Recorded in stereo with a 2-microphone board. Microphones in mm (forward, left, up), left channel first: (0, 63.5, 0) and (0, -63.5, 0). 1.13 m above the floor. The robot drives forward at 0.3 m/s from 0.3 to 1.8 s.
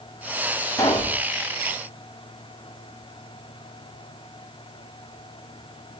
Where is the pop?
25° left (ahead or behind), 7 m; by 1.2 s 20° left (ahead or behind), 7 m.